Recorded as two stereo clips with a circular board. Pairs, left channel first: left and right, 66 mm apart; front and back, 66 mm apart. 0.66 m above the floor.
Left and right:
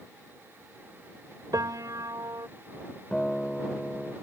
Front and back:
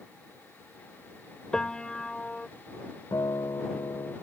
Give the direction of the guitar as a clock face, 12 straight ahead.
12 o'clock.